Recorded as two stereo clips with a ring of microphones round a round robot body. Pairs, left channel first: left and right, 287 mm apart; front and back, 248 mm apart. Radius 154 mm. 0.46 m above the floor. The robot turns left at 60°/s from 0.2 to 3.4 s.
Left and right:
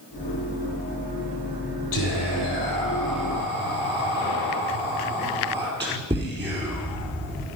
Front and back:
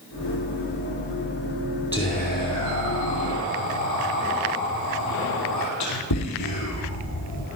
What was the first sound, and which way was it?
Whispering, 70° left.